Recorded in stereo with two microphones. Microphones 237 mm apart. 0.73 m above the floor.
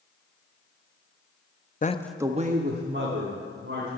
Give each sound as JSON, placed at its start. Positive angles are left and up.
{"t": 1.8, "sound": "a man speaking", "side_deg": 35, "distance_m": 0.5}